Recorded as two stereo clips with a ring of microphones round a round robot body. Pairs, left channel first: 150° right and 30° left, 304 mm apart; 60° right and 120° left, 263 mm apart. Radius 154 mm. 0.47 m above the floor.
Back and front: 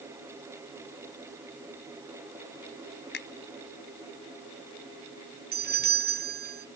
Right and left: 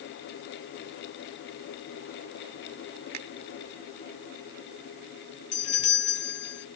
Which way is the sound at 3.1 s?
155° left.